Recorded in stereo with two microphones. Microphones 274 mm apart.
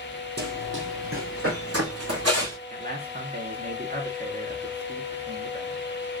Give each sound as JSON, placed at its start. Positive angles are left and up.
{"t": 0.4, "sound": "running footsteps", "side_deg": -40, "distance_m": 1.6}
{"t": 2.7, "sound": "a man speaking", "side_deg": -35, "distance_m": 1.6}